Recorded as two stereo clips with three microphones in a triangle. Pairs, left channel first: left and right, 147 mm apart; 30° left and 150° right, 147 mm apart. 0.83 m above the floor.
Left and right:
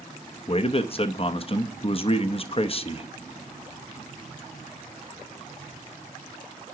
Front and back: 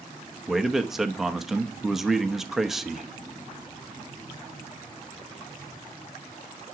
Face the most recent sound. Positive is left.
turn(degrees=125)